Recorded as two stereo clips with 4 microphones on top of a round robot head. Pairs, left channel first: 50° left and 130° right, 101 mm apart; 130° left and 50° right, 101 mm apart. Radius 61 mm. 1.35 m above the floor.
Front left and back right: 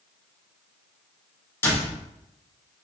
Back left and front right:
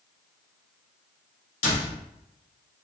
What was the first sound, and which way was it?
A door slam, 115° left.